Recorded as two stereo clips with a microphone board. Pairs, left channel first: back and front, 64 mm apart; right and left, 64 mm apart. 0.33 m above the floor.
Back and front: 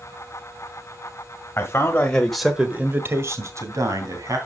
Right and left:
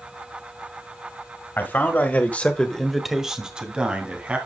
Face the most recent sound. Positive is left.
turn(degrees=25)